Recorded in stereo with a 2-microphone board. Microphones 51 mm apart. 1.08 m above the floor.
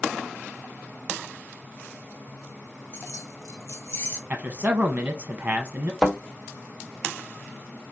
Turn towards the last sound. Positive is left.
turn(degrees=-5)  # may be behind; listen again after turning